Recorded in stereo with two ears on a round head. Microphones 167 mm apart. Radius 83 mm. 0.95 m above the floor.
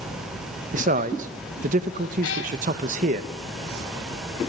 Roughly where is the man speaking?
Right.